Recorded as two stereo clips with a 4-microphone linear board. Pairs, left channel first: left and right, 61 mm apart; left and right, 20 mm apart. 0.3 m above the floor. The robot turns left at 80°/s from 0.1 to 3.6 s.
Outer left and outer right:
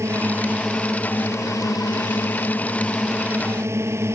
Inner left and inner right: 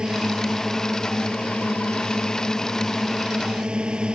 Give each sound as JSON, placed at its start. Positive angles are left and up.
{"t": 0.0, "sound": "a drone", "side_deg": -50}